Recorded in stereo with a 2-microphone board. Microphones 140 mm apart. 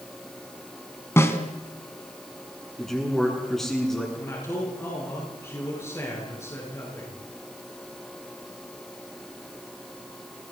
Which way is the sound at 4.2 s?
20° left (ahead or behind).